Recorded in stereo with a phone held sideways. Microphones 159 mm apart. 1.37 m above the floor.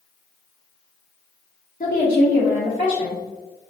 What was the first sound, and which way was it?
A woman speaking, 65° left (ahead or behind).